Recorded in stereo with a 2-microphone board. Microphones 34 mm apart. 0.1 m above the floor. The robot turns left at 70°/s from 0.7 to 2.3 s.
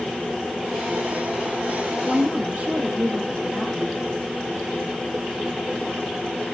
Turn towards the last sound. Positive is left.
turn(degrees=-45)  # may be behind; listen again after turning